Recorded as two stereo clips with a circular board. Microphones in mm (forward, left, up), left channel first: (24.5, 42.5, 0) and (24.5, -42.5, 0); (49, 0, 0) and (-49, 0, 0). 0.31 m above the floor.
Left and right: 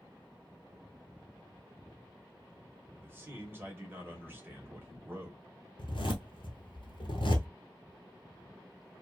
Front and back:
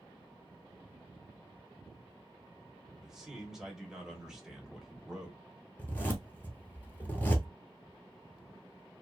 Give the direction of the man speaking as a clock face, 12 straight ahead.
3 o'clock.